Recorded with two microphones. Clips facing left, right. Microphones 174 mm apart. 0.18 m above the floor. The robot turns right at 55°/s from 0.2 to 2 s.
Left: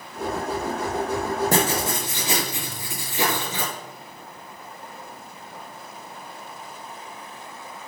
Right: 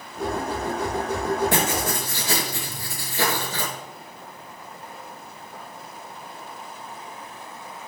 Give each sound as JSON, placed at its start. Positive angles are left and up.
{"t": 1.5, "sound": "writing", "side_deg": 45, "distance_m": 2.5}